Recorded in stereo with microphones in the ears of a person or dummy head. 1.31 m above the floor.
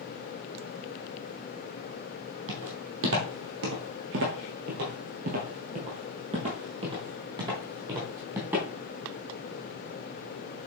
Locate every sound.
2.5 s footsteps: 65° right (ahead or behind), 3 m; by 8.7 s 15° right (ahead or behind), 3.5 m